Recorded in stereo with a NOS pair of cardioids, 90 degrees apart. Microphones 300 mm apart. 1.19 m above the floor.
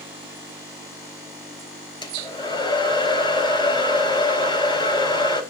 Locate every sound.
2.0 s a hair dryer: 15° left, 4 m